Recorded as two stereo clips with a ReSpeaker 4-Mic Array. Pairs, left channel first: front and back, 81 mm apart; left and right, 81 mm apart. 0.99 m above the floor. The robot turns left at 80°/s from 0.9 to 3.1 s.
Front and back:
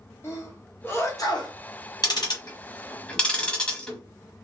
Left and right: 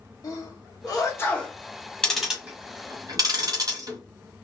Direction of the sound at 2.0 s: 10° left.